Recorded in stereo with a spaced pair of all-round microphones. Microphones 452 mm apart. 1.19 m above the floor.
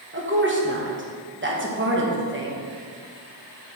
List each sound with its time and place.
0.1 s a woman speaking: 25° right (ahead or behind), 1.2 m